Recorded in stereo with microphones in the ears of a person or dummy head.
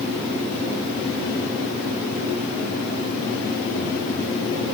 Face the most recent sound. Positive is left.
No sound to turn to.